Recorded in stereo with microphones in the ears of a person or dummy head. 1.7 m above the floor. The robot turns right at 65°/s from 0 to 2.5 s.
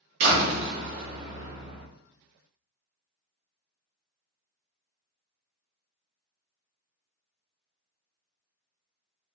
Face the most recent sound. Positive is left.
turn(degrees=55)